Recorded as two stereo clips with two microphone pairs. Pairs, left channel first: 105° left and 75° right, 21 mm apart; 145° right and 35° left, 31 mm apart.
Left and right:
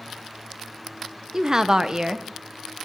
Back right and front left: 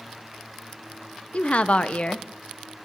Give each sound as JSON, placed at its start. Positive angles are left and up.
{"t": 1.3, "sound": "a woman speaking", "azimuth_deg": -120, "distance_m": 0.7}